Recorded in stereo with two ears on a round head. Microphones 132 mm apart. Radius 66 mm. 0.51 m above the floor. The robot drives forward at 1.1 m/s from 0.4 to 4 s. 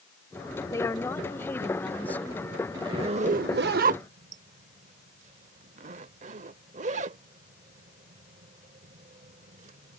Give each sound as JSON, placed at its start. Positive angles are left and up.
{"t": 0.7, "sound": "a woman speaking", "side_deg": 20}
{"t": 2.7, "sound": "a zipper", "side_deg": -30}